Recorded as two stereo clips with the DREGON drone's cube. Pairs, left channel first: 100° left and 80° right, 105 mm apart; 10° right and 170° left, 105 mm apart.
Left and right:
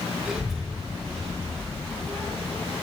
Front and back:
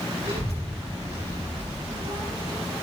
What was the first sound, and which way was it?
A child speaking, 165° right.